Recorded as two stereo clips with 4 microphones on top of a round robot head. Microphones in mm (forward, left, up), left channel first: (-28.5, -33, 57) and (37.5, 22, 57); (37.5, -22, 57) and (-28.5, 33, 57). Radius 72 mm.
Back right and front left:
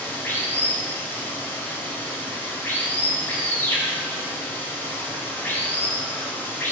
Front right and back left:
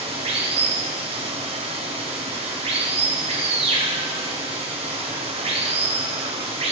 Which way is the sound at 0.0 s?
150° left.